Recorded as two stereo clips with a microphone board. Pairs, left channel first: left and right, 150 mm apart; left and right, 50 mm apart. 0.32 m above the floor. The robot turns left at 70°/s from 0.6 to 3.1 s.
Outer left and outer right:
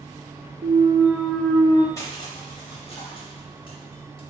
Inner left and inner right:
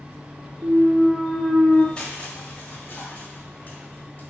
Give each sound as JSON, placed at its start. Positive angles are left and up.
{"t": 0.6, "sound": "a clunk", "azimuth_deg": -130, "distance_m": 0.7}
{"t": 2.0, "sound": "crushing", "azimuth_deg": 150, "distance_m": 1.0}